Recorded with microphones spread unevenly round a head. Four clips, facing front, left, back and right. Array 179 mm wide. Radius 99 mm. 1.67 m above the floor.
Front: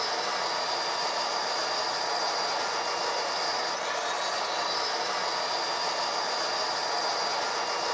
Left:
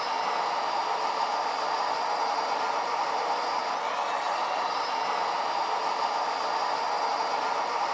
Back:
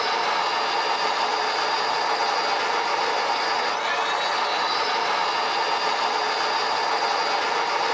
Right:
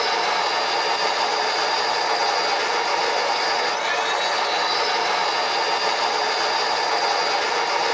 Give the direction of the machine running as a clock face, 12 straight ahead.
4 o'clock.